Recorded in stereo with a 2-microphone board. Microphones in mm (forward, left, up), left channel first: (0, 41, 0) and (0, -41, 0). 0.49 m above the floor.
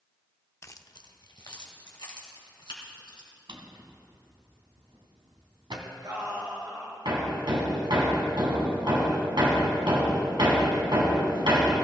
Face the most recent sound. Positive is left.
turn(degrees=-75)  # may be behind; listen again after turning